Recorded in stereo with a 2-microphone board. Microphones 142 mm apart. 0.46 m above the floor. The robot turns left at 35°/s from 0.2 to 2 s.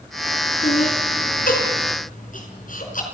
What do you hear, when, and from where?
0.6 s laughter: 55° left (ahead or behind), 5 m; by 3.0 s 75° left (ahead or behind), 5 m